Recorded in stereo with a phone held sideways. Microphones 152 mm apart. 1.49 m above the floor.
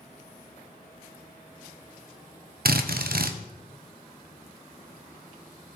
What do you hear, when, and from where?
2.6 s a drill: 75° right (ahead or behind), 0.9 m